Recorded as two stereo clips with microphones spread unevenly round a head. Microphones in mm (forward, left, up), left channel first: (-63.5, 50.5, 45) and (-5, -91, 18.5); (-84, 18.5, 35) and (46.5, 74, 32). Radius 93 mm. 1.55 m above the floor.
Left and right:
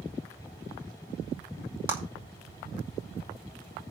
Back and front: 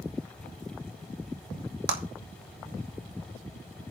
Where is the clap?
15° left, 2.5 m.